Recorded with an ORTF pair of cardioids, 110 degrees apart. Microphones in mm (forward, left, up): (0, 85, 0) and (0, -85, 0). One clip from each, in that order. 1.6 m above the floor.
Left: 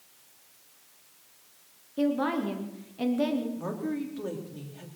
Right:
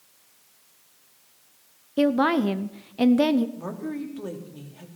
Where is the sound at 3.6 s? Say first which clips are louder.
Even; 10° right, 3.5 m.